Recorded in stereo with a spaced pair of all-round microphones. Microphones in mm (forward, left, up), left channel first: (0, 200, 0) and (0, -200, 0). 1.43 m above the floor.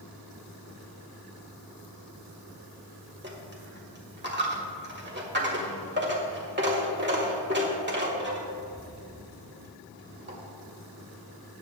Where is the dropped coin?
25° right (ahead or behind), 1.5 m.